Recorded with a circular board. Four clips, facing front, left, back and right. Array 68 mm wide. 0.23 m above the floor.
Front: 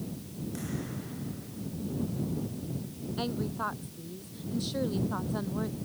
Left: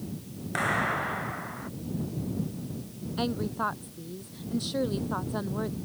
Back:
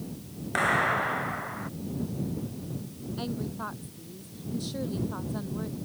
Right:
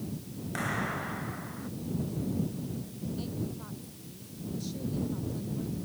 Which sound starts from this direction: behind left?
A clap, at 0.6 s.